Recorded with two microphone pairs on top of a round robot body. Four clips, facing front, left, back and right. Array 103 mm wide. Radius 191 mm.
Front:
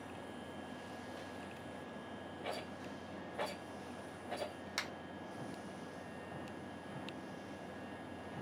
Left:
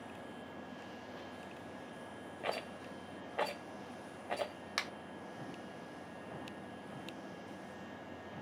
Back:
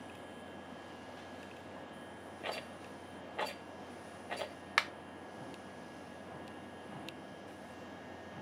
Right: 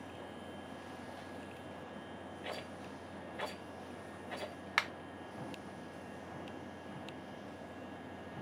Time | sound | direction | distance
2.4 | a rattle | 110° left | 0.5 m
4.8 | a finger snap | 160° right | 0.9 m